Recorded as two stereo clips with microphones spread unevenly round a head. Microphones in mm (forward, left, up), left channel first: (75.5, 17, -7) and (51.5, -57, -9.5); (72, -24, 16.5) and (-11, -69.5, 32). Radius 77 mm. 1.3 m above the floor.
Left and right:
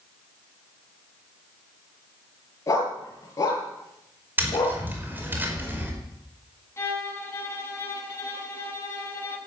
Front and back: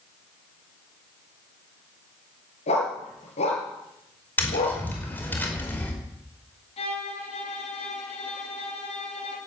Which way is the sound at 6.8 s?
15° left.